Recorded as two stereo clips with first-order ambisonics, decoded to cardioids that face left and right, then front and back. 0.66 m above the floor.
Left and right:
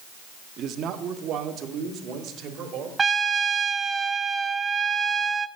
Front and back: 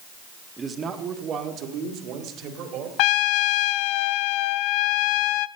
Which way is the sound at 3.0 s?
15° right.